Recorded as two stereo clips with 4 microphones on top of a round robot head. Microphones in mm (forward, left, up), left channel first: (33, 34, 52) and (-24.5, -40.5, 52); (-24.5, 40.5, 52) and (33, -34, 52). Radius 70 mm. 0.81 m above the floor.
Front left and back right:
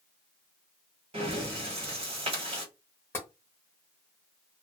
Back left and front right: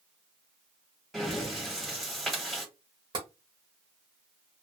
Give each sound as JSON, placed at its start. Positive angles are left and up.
{"t": 1.1, "sound": "breathing", "azimuth_deg": -145, "distance_m": 1.4}
{"t": 3.1, "sound": "tapping", "azimuth_deg": -15, "distance_m": 0.7}